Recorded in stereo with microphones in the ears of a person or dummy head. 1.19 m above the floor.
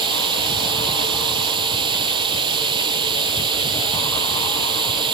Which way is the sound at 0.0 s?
25° right (ahead or behind).